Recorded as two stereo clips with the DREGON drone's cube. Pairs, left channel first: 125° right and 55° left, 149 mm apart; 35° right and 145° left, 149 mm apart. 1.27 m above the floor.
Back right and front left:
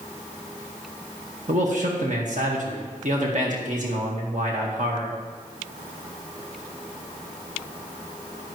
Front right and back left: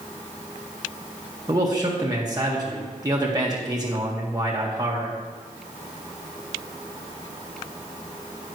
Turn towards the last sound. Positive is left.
turn(degrees=85)